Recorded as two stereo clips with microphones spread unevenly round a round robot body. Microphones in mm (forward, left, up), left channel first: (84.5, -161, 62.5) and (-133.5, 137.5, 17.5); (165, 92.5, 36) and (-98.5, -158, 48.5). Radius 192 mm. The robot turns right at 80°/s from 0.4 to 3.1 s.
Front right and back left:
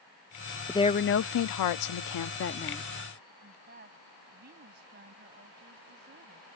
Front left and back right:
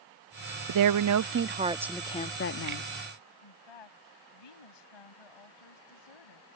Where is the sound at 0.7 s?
145° right; by 2.9 s 30° left.